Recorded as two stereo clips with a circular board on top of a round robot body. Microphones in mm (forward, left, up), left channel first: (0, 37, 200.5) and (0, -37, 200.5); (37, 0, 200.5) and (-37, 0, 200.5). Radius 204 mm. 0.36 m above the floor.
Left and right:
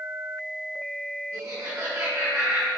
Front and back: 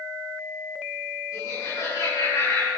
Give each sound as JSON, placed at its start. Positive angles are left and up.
{"t": 1.3, "sound": "laughter", "azimuth_deg": -25, "distance_m": 6.0}